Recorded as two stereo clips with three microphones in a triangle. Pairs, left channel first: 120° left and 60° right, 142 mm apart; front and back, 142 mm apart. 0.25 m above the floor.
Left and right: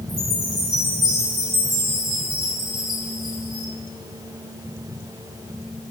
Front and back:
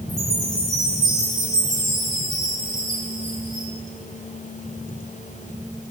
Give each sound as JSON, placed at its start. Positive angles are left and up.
{"t": 0.1, "sound": "a chime", "azimuth_deg": -115, "distance_m": 6.5}